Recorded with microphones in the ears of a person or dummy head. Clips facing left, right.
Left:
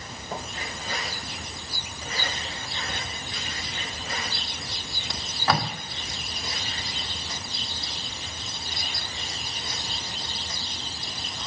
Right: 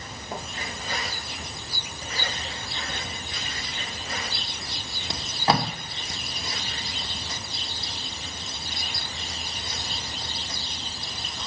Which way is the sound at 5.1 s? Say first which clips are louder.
Right 2 dB; 25° right (ahead or behind).